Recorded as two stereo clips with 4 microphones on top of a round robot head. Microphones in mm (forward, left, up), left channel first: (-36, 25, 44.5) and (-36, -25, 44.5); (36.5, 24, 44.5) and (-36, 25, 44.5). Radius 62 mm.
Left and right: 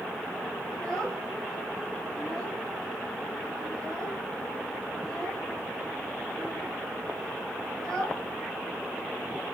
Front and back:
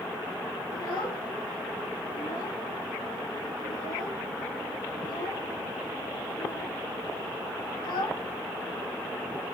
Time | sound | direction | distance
0.7 | a child speaking | 10° left | 2.5 m